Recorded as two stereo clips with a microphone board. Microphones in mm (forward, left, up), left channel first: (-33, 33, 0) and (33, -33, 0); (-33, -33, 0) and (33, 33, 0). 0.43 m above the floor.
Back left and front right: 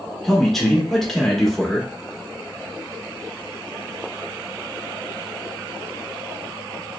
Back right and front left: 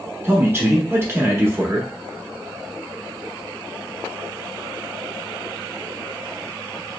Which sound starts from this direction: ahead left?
A man speaking, at 0.2 s.